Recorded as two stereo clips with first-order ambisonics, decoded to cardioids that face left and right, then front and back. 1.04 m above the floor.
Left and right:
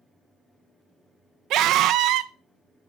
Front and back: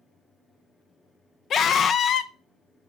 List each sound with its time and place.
1.5 s a scream: 55° right, 0.5 m